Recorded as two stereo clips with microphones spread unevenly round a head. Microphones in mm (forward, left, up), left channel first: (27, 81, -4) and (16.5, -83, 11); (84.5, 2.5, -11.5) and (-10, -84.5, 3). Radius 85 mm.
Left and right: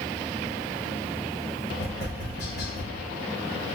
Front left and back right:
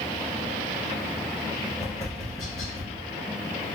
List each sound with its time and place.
1.8 s tapping: 55° left, 2.5 m